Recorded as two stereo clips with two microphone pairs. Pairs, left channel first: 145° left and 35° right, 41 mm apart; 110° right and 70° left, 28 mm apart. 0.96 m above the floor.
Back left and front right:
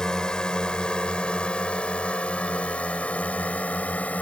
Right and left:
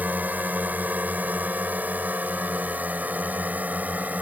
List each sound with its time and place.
0.0 s a drone: 75° left; by 4.2 s 95° left